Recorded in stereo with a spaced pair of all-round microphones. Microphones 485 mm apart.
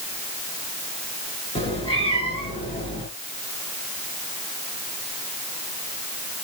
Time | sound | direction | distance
1.6 | a cat meowing | 10° left (ahead or behind) | 6 m